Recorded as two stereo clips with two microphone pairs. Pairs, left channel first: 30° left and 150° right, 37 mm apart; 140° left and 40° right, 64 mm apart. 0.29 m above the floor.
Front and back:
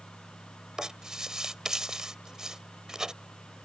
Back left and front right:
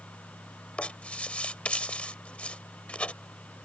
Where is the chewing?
I don't hear chewing.